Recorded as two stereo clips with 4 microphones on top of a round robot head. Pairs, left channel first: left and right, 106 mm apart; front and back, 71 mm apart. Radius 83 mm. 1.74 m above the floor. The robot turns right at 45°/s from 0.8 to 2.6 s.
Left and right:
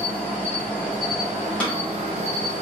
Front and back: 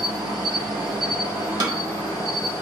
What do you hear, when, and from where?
0.0 s an insect: 170° left, 0.7 m; by 2.6 s 110° right, 0.7 m
1.6 s a snare drum: 170° left, 0.9 m; by 1.8 s straight behind, 0.9 m